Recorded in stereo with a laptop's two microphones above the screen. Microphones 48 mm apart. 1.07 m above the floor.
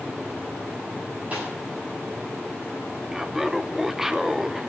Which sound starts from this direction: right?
A snare drum, at 1.3 s.